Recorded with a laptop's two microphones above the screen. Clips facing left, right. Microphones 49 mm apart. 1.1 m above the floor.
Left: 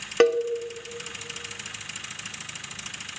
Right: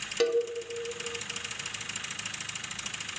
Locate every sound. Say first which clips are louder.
0.2 s a cowbell: left 6 dB; 50° left (ahead or behind), 0.6 m